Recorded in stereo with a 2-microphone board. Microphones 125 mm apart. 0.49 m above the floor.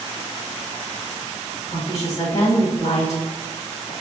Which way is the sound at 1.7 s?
70° left (ahead or behind).